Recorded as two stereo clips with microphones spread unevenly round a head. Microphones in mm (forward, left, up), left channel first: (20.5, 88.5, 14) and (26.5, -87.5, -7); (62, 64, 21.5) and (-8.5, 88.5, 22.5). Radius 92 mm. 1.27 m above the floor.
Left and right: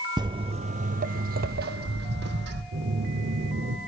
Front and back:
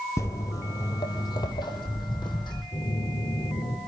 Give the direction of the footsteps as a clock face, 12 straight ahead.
1 o'clock.